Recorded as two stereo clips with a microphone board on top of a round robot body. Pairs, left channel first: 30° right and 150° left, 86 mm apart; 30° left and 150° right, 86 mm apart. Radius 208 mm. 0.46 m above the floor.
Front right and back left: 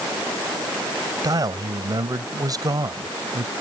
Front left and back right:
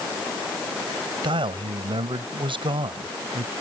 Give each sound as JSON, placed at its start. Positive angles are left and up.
{"t": 1.2, "sound": "a man speaking", "azimuth_deg": -165}